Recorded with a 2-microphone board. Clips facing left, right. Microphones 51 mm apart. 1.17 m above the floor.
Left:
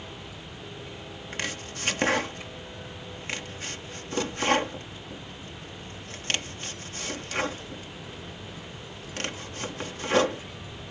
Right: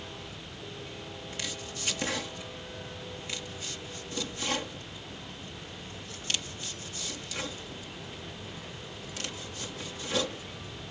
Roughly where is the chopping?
Left.